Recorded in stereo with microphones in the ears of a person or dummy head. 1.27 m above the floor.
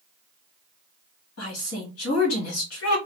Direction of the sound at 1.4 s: 85° left.